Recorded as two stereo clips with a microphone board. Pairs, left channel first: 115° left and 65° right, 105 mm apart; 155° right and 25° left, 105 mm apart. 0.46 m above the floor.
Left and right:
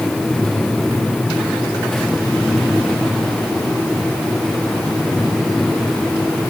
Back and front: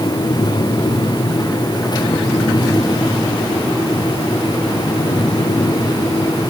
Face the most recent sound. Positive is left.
No sound to turn to.